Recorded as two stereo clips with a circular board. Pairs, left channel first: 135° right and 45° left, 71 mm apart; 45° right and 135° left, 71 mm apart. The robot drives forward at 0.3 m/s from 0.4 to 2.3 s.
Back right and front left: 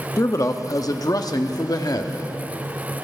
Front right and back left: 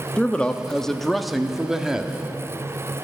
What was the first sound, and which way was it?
A man speaking, 115° right.